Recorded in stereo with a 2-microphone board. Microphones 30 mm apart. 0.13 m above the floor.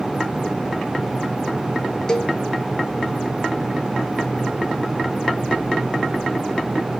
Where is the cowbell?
25° left (ahead or behind), 1.2 m.